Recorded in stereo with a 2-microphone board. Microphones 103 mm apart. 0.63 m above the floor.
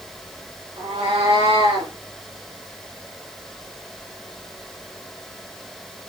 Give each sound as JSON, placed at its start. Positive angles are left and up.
{"t": 0.8, "sound": "a cat meowing", "side_deg": -75, "distance_m": 4.5}